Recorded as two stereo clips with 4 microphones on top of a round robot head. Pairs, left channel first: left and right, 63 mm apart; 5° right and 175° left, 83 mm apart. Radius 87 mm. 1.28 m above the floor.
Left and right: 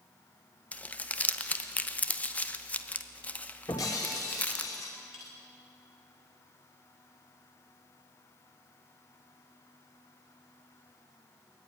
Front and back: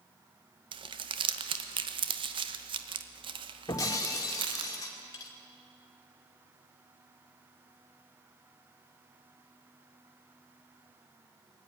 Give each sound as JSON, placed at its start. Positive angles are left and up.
{"t": 0.7, "sound": "crumpling", "azimuth_deg": 160, "distance_m": 1.1}
{"t": 3.7, "sound": "breaking glass", "azimuth_deg": 40, "distance_m": 2.5}